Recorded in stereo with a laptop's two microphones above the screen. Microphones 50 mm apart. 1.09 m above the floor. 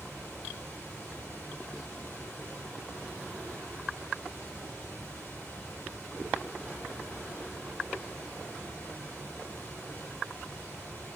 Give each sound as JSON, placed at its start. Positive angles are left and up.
{"t": 0.0, "sound": "running water", "side_deg": 20, "distance_m": 3.5}